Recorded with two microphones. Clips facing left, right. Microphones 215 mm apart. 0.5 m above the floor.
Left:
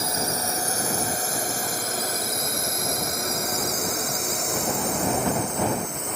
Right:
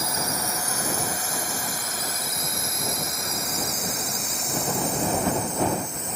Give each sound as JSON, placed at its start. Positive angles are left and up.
{"t": 0.0, "sound": "a drone", "side_deg": 30}